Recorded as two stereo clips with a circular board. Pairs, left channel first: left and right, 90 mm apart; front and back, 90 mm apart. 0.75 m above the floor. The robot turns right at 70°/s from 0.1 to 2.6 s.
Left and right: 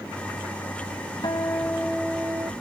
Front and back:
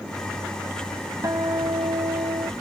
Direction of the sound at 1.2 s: 125° left.